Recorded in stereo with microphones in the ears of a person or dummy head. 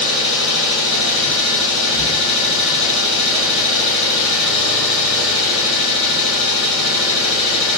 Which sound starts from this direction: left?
An engine running, at 0.0 s.